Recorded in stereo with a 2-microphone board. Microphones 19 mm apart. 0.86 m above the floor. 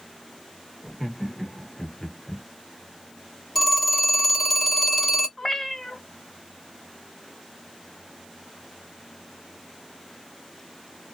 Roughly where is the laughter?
Centre.